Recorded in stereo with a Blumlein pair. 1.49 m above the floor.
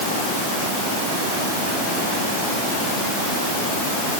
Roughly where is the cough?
I don't hear a cough.